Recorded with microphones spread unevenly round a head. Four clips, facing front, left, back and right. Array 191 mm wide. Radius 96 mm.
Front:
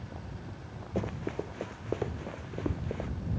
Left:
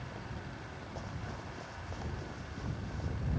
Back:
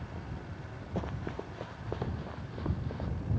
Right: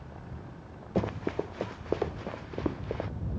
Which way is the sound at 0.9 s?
75° right.